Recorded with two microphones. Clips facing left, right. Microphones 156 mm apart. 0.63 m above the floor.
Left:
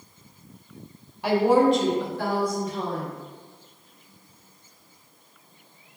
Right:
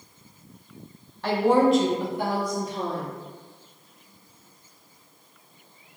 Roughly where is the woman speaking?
Centre.